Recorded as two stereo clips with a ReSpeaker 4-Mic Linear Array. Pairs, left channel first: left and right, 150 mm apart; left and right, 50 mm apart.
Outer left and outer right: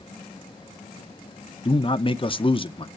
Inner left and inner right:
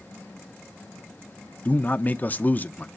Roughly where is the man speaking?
Left.